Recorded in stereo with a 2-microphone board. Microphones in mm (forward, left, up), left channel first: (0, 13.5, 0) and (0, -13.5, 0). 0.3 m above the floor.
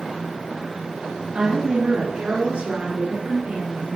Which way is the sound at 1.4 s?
50° right (ahead or behind).